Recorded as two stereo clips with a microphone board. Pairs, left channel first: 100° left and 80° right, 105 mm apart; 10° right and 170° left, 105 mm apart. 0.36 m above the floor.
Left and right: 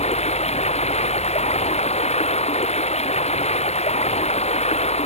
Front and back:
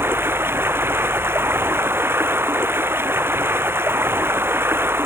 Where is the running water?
100° left.